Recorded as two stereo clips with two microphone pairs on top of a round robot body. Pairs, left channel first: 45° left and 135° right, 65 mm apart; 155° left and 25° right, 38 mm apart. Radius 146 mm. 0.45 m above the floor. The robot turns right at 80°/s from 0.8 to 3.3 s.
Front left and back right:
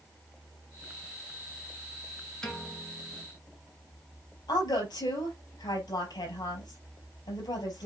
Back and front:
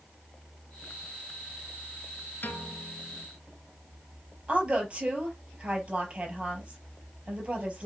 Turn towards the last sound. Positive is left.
turn(degrees=40)